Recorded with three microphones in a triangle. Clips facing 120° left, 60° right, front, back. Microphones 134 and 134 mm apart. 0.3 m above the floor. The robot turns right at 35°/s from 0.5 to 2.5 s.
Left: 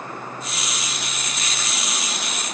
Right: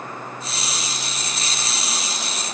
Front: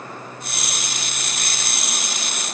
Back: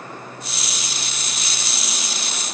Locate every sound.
Only background noise.